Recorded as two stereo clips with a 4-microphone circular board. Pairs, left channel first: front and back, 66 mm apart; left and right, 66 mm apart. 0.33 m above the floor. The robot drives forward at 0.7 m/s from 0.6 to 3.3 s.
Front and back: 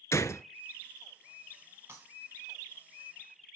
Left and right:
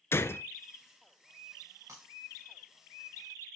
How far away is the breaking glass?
About 5.5 m.